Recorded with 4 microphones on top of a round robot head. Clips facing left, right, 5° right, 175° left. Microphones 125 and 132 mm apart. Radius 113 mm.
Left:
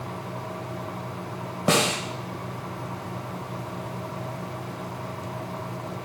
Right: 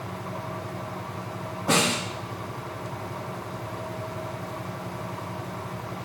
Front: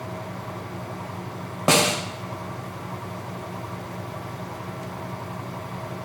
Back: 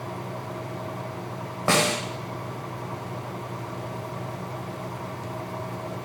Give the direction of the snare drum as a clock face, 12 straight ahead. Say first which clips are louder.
Left 1 dB, front 2 dB; 10 o'clock.